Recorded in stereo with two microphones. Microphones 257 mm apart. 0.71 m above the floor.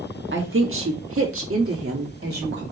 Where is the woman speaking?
50° right (ahead or behind), 1.2 m.